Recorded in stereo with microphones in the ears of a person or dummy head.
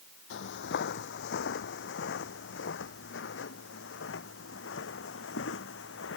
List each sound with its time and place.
0.3 s footsteps: 70° left (ahead or behind); by 6.2 s 80° left